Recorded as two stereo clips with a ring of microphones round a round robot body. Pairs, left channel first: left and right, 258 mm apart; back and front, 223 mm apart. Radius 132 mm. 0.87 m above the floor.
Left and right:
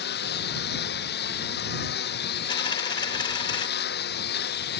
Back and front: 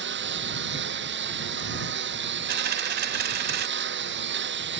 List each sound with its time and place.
0.0 s a lawn mower: 35° left
2.5 s a dropped coin: 25° left